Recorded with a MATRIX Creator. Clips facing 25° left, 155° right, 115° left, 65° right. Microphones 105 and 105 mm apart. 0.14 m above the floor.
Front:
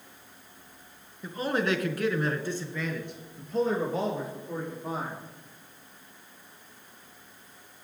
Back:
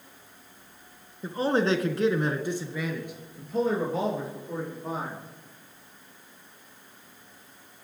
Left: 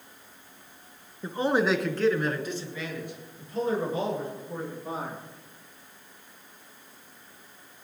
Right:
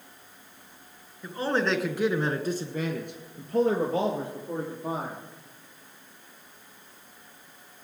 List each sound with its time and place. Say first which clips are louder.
1.2 s a man speaking: back 4 dB, left 2 dB; 160° left, 1.5 m; by 5.2 s 65° right, 4.5 m